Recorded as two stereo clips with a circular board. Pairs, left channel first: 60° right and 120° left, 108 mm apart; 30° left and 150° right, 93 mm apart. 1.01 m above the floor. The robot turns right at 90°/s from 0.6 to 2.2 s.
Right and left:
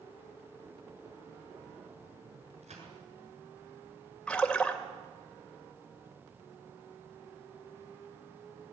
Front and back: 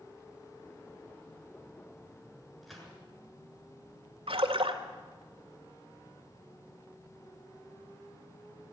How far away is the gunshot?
About 7.5 m.